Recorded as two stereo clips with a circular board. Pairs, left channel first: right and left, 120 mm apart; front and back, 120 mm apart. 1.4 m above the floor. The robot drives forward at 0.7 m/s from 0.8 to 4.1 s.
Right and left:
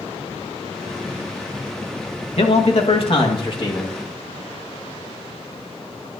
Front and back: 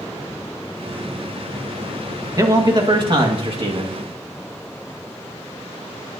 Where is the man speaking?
120° right, 1.7 m; by 3.9 s 145° right, 2.5 m.